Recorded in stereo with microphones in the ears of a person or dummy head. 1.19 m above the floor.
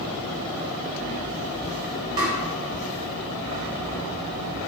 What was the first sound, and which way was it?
Tapping, 20° right (ahead or behind).